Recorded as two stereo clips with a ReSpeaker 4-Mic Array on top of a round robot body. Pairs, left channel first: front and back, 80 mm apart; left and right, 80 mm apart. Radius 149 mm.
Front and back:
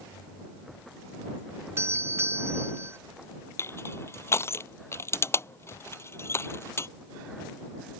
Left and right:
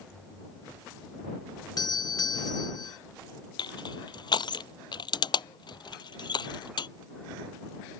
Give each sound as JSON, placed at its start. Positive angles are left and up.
{"t": 1.8, "sound": "a doorbell", "azimuth_deg": 125}
{"t": 3.6, "sound": "crushing", "azimuth_deg": 60}